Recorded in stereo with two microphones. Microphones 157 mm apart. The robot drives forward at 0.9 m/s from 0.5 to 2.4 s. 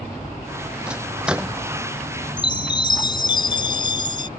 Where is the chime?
30° left (ahead or behind).